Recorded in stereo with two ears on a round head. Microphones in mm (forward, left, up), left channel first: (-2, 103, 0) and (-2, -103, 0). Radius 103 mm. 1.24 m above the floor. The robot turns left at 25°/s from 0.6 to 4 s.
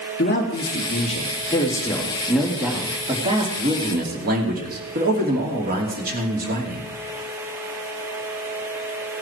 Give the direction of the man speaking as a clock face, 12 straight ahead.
11 o'clock.